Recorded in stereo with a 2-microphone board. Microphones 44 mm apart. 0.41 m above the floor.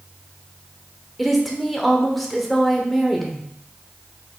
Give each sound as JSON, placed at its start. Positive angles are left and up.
{"t": 1.2, "sound": "a woman speaking", "side_deg": 0, "distance_m": 0.8}